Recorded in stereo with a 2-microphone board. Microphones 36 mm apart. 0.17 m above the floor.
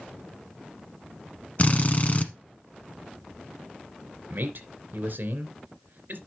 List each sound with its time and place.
1.6 s a drill: 40° left (ahead or behind), 1.1 m
4.3 s a man speaking: 55° right (ahead or behind), 2.5 m